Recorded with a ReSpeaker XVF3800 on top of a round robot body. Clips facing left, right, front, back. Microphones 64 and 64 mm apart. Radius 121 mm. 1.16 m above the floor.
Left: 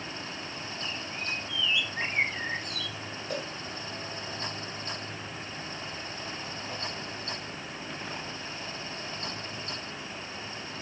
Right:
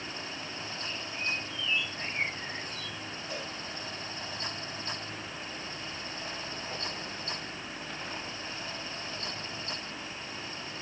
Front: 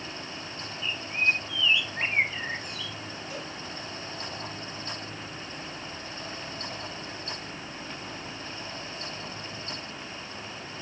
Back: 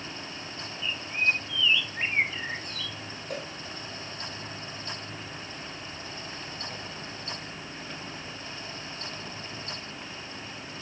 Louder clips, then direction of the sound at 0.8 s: Right 1 dB, front 1 dB; 85° left.